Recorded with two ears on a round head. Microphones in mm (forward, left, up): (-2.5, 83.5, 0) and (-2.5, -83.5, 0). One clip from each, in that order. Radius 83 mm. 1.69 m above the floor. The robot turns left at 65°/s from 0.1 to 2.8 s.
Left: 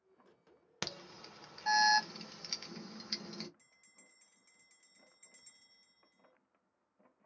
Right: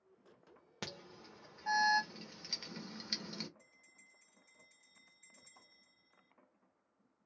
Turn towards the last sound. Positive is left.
turn(degrees=30)  # may be behind; listen again after turning